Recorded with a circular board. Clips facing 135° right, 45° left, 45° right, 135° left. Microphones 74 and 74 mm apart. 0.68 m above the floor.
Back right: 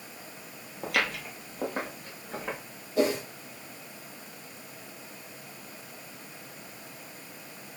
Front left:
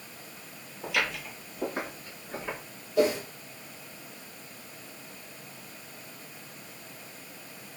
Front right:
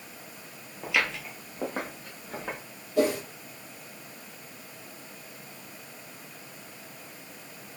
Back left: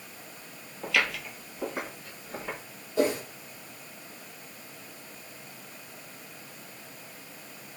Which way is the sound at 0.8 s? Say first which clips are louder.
Back right 1 dB, even; 130° right.